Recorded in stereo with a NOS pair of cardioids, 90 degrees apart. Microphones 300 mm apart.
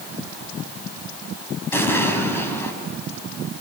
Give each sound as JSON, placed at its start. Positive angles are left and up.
{"t": 1.7, "sound": "an explosion", "azimuth_deg": 5, "distance_m": 5.0}